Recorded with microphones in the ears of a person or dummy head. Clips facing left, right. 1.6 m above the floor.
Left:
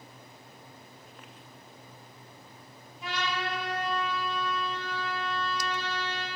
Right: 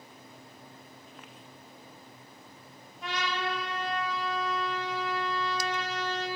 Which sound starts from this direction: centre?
A trumpet, at 3.0 s.